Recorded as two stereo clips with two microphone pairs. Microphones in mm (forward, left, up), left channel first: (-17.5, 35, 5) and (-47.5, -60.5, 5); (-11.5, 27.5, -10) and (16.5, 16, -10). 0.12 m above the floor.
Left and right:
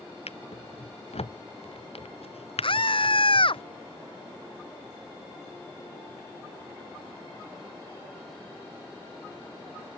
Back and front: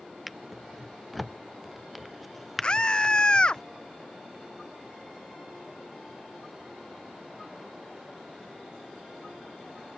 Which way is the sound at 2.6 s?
100° left.